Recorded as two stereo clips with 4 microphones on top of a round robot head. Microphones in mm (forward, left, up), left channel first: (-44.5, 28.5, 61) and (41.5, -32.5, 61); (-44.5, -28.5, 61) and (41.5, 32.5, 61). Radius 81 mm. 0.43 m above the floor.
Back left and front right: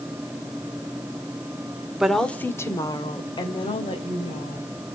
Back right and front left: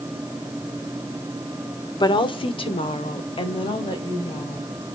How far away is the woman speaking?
About 1.5 m.